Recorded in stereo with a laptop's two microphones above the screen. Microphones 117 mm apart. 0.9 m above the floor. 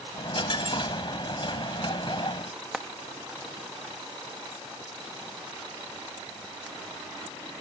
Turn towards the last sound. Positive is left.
turn(degrees=0)  # may be behind; listen again after turning